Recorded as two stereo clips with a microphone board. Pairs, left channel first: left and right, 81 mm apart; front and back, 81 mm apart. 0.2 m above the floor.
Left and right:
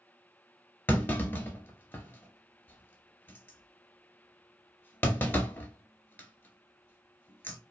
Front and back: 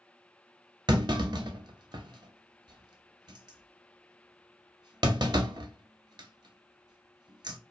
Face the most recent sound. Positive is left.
turn(degrees=155)